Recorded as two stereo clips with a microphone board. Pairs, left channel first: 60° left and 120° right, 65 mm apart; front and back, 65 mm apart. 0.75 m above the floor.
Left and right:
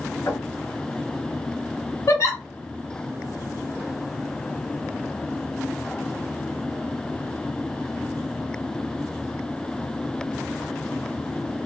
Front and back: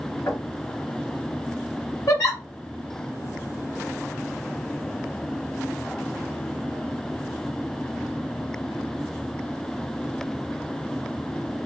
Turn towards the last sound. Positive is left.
turn(degrees=30)